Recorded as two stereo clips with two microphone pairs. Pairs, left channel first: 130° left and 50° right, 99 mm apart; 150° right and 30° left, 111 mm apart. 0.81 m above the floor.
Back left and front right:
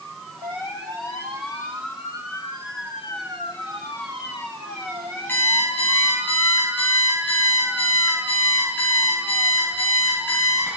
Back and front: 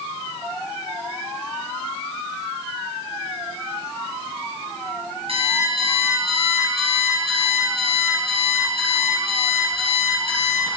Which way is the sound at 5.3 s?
60° left.